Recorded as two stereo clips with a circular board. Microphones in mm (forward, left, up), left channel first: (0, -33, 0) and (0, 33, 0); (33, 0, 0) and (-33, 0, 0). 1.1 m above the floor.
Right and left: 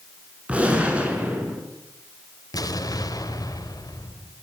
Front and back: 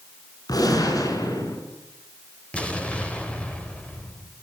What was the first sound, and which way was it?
A gunshot, 20° left.